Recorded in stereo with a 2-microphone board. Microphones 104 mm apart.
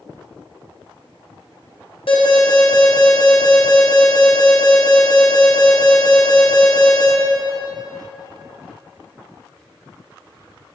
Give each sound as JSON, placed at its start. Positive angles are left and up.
{"t": 2.1, "sound": "an alarm", "side_deg": 70, "distance_m": 3.5}